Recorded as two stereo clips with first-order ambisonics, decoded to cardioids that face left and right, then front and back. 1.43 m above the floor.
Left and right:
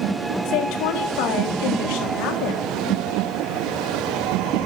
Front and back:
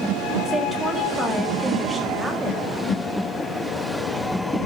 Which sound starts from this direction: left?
A woman speaking, at 0.5 s.